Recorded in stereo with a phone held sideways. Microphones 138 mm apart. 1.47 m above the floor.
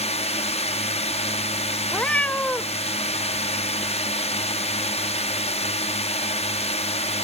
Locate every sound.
0.0 s a drone: 50° left (ahead or behind)
1.9 s a cat meowing: 10° left (ahead or behind)